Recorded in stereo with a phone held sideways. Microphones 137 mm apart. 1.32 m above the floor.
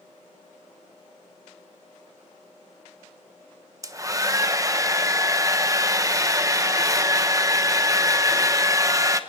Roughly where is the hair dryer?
Right.